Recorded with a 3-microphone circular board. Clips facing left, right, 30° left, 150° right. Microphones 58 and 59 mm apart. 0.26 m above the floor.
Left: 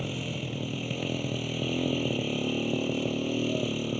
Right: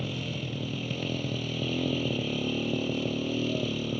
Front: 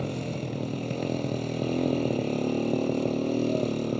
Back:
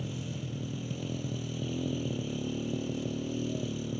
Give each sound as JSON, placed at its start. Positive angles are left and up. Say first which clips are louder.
{"t": 0.0, "sound": "a motorcycle", "louder": "even, front 7 dB", "azimuth_deg": 10}